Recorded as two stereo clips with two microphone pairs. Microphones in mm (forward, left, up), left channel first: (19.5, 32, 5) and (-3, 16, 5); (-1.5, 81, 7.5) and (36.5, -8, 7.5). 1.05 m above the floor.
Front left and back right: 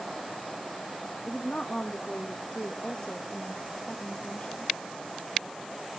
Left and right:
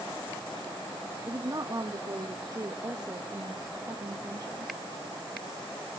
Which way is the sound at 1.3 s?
15° right.